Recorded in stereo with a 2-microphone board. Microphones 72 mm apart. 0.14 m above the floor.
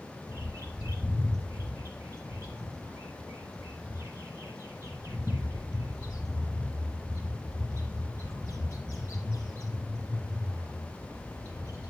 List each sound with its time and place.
0.3 s a bird: 50° right (ahead or behind), 4.5 m